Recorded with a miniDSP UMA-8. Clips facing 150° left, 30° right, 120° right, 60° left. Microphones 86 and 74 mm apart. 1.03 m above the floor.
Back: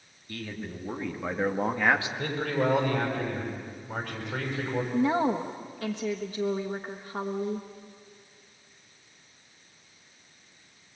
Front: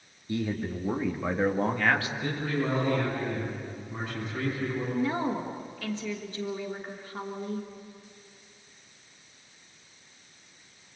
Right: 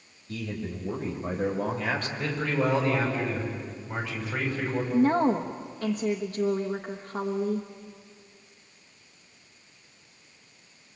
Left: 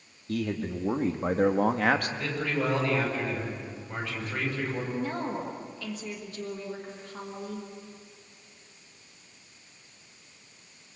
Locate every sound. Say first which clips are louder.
0.3 s a man speaking: front 7 dB, left 4 dB; 35° left, 2.5 m; by 2.1 s 85° left, 1.9 m
2.2 s a man speaking: back 2 dB, right 2 dB; 160° left, 6.5 m
4.9 s a woman speaking: back 5 dB, right 9 dB; 170° right, 1.4 m